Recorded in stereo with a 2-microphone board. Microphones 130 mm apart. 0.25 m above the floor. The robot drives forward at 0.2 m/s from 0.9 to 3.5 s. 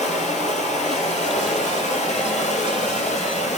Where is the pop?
I don't hear a pop.